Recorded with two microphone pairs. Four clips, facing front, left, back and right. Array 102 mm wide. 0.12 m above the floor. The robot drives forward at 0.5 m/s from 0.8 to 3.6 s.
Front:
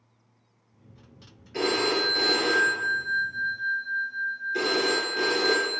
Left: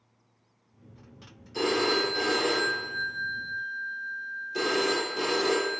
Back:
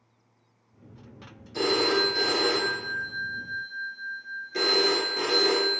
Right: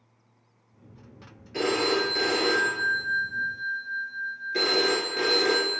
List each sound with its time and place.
1.5 s a phone ringing: 55° right, 1.5 m; by 5.8 s 105° right, 1.3 m